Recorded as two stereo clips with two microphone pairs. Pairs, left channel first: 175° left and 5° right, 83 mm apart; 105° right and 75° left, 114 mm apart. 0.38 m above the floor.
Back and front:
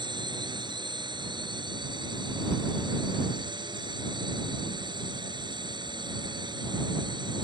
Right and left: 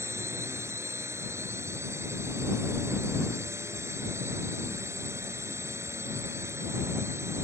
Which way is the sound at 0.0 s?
10° left.